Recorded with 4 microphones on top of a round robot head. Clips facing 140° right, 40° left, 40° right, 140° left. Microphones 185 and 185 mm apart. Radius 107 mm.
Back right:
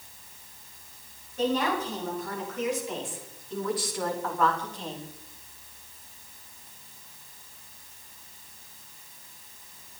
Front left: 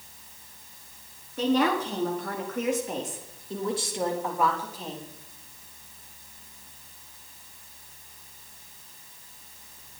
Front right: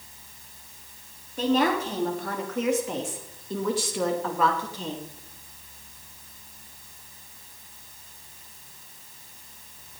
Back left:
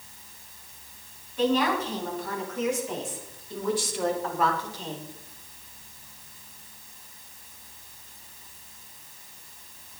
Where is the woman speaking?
10° left, 4 m; by 5.0 s 55° right, 3 m.